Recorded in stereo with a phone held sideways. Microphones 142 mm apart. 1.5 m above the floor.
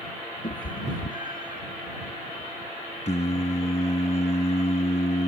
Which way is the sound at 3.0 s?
55° left (ahead or behind).